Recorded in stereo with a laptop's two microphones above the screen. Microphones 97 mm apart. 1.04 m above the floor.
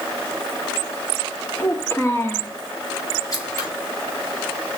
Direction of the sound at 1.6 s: 25° left (ahead or behind).